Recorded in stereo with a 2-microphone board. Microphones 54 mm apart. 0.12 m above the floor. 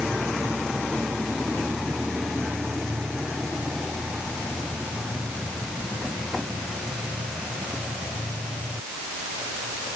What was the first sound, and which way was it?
Only background noise.